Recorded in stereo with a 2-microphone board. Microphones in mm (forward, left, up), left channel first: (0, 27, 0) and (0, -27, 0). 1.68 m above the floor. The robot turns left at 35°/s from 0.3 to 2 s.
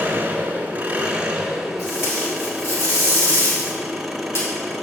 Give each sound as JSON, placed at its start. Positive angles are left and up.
{"t": 0.0, "sound": "an engine running", "azimuth_deg": -110, "distance_m": 1.4}
{"t": 1.8, "sound": "tape being pulled", "side_deg": 60, "distance_m": 3.5}